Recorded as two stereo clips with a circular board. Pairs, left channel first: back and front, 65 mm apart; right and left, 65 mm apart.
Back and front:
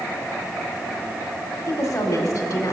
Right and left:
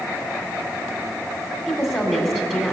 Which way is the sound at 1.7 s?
155° right.